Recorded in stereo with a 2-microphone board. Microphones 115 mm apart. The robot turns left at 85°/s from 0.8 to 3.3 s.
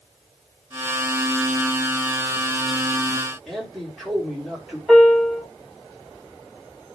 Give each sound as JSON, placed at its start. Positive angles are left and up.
{"t": 3.5, "sound": "a man speaking", "side_deg": 0, "distance_m": 5.5}
{"t": 4.9, "sound": "a piano", "side_deg": 0, "distance_m": 5.0}